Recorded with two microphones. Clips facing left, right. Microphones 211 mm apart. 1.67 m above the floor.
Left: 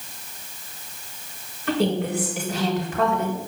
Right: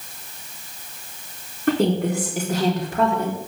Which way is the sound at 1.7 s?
50° right (ahead or behind).